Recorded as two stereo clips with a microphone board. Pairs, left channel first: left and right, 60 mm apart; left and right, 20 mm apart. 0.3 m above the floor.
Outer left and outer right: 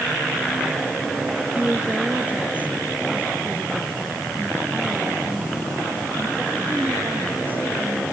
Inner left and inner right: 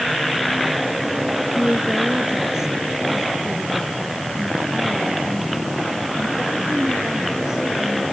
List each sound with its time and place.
1.6 s a woman speaking: 25° right (ahead or behind); by 8.0 s 35° right (ahead or behind)